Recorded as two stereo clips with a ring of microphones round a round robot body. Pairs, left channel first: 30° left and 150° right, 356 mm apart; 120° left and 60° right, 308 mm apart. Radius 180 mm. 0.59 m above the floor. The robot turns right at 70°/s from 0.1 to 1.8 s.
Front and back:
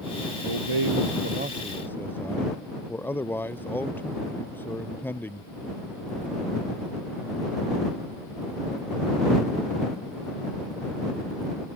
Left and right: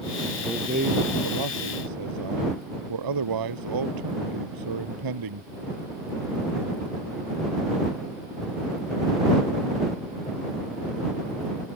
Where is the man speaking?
150° right; by 5.5 s 55° right.